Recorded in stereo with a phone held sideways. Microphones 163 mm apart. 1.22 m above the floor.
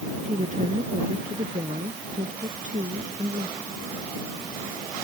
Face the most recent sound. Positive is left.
turn(degrees=-55)  # may be behind; listen again after turning